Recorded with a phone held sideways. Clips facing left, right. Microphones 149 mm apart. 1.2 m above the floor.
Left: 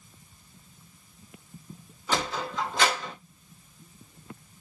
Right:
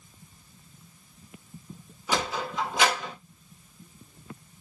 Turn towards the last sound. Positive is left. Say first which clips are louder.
# right 1 dB
turn(degrees=-10)  # may be behind; listen again after turning